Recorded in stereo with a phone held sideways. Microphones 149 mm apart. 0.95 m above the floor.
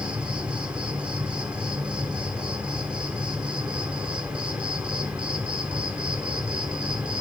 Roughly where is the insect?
Centre.